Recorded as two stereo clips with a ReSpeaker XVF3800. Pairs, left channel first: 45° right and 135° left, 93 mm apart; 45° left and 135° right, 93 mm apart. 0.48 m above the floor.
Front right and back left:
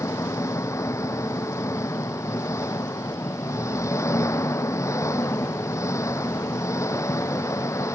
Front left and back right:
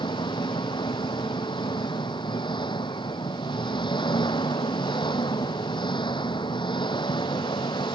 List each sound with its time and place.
0.0 s an engine running: 15° left